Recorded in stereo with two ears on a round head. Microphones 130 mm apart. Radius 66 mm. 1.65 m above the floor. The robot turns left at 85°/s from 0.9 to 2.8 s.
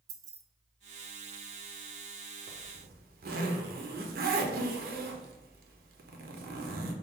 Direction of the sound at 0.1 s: 25° right (ahead or behind).